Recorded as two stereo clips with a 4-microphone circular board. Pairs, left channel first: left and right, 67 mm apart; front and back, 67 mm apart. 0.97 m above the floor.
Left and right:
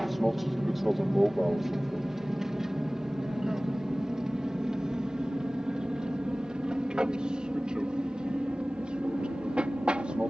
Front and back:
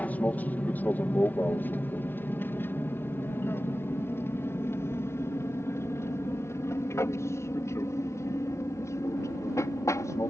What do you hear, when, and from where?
0.0 s an aircraft: 5° right; by 10.3 s 20° right